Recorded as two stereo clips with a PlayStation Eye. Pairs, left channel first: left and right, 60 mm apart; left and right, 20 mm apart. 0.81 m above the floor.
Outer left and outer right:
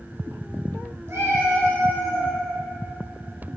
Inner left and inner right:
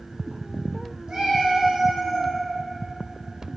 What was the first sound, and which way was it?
A cat meowing, 45° right (ahead or behind).